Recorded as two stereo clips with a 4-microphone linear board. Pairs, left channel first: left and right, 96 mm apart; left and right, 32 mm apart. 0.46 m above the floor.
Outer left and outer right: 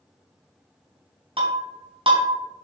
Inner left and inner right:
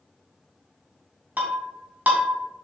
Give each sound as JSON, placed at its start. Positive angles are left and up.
{"t": 1.4, "sound": "breaking glass", "side_deg": -65, "distance_m": 2.5}